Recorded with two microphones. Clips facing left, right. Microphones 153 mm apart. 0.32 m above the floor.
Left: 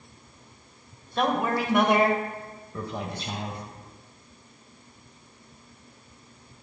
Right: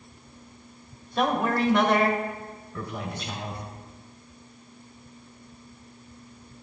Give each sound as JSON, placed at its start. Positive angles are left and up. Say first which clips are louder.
{"t": 1.2, "sound": "a man speaking", "louder": "right 1 dB", "side_deg": 0, "distance_m": 1.1}